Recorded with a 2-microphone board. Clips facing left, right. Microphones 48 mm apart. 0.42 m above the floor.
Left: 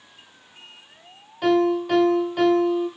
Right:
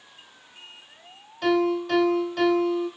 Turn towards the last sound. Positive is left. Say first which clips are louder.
# left 3 dB
turn(degrees=10)  # may be behind; listen again after turning